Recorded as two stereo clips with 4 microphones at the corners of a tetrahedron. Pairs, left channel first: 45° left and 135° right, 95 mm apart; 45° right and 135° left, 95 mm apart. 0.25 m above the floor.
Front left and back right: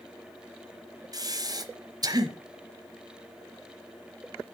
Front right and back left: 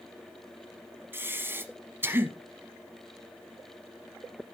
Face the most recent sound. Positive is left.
turn(degrees=-165)